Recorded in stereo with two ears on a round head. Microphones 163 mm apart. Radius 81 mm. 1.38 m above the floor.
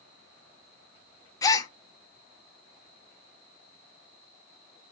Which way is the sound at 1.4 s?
20° left (ahead or behind).